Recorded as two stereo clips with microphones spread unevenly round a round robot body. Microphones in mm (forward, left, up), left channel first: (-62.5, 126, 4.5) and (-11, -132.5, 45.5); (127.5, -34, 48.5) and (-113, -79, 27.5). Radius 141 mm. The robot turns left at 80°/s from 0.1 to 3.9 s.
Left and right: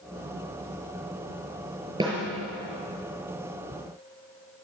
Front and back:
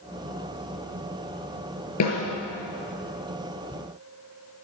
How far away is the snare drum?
About 6 m.